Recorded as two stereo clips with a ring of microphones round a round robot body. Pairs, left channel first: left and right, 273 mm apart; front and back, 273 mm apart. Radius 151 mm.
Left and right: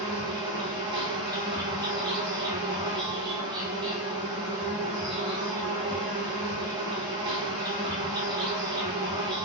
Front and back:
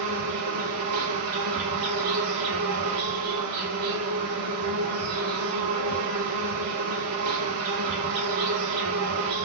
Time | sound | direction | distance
0.0 | an insect | 165° right | 0.9 m